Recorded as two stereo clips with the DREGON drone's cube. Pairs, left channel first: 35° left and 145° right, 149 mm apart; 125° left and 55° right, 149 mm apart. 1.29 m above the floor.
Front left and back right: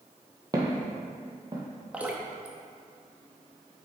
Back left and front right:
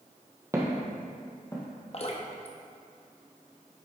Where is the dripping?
140° left, 0.8 m.